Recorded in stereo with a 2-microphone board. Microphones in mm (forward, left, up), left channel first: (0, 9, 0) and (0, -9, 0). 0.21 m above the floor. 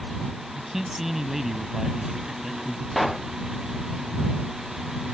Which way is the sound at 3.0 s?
10° right (ahead or behind).